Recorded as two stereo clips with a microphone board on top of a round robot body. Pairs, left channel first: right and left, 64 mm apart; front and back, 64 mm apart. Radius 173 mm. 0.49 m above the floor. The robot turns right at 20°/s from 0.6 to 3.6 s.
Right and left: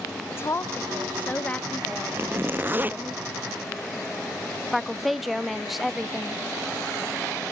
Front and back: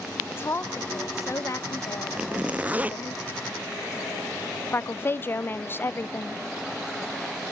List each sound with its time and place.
0.3 s a woman speaking: 45° right, 1.4 m; by 3.2 s 5° left, 1.4 m
2.2 s a zipper: 115° left, 0.8 m; by 3.0 s 135° left, 0.8 m
4.7 s a woman speaking: straight ahead, 0.7 m